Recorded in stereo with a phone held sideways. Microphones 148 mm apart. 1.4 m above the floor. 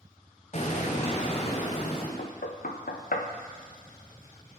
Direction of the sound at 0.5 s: 50° left (ahead or behind).